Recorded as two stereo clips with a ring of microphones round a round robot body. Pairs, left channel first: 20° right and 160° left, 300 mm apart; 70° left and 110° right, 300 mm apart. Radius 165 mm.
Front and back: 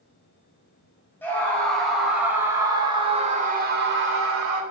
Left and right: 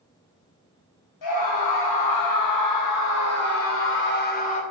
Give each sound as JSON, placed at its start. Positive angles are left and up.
{"t": 1.2, "sound": "a scream", "azimuth_deg": 60, "distance_m": 5.0}